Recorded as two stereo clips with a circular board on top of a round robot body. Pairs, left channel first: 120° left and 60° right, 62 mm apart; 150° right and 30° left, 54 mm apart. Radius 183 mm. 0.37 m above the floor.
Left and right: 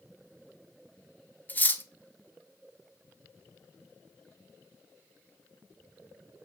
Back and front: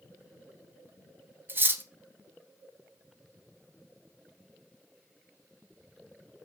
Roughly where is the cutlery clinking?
Ahead left.